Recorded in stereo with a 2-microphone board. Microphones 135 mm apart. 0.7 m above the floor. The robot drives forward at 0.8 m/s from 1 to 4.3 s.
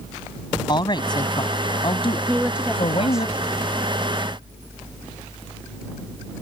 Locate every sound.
0.7 s a woman speaking: 35° left (ahead or behind); by 3.3 s 45° left (ahead or behind)
2.3 s a woman speaking: 10° right (ahead or behind); by 3.7 s 5° right (ahead or behind)